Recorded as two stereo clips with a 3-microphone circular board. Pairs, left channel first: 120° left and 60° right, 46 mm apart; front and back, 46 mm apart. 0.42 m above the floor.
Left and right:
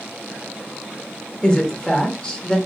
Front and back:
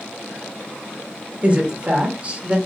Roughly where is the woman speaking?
Behind.